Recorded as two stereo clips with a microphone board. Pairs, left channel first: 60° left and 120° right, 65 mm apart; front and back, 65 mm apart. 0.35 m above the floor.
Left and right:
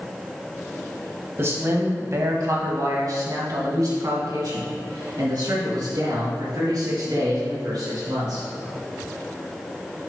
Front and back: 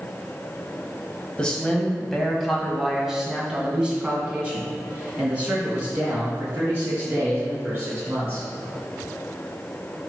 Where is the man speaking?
75° right, 1.5 m; by 8.5 s 120° right, 4.5 m.